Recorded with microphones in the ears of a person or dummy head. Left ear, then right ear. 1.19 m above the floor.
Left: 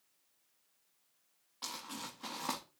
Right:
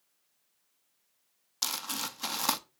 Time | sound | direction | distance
1.6 | crumpling | 55° right (ahead or behind) | 0.7 m